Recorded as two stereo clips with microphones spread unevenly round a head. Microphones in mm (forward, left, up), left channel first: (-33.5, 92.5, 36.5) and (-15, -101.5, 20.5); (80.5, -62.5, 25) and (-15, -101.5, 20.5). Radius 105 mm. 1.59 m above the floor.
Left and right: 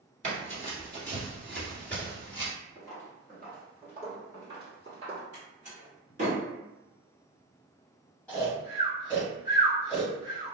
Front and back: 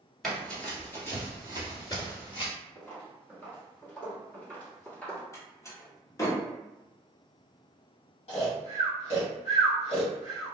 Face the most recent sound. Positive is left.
turn(degrees=15)